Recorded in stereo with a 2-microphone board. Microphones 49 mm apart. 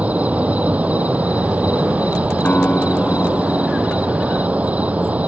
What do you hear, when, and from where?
0.0 s an insect: 30° right (ahead or behind)
2.5 s a guitar: 40° left (ahead or behind)